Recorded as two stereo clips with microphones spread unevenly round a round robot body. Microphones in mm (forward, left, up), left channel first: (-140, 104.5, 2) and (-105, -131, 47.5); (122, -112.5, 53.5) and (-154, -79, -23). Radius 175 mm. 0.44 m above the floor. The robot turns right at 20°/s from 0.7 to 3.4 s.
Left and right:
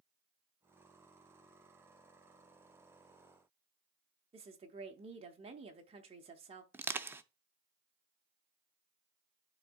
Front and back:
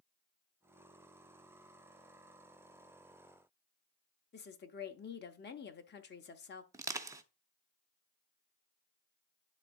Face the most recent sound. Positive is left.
turn(degrees=-175)